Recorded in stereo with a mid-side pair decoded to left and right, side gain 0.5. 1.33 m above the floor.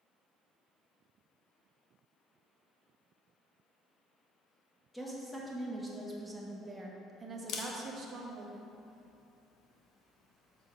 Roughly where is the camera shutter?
Ahead left.